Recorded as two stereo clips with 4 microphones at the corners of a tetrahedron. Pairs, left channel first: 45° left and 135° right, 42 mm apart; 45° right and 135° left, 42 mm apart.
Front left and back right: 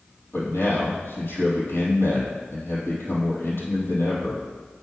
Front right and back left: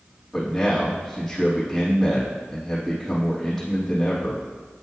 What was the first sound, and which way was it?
A man speaking, 40° left.